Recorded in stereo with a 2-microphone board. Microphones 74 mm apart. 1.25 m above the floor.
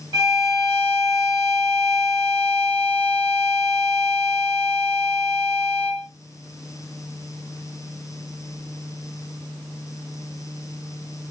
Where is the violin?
70° right (ahead or behind), 2 m.